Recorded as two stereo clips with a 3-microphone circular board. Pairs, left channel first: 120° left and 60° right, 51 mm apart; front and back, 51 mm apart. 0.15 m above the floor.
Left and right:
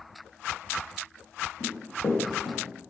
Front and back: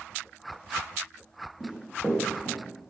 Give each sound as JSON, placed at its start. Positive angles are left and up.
{"t": 1.6, "sound": "running footsteps", "azimuth_deg": 105, "distance_m": 1.4}